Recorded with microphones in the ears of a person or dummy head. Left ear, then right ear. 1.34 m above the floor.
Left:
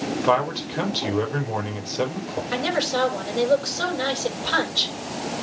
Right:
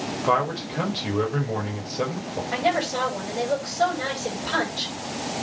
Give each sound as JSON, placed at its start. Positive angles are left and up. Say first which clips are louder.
{"t": 0.2, "sound": "a man speaking", "louder": "left 1 dB", "side_deg": 30, "distance_m": 4.5}
{"t": 2.5, "sound": "a woman speaking", "louder": "even", "side_deg": 40, "distance_m": 8.5}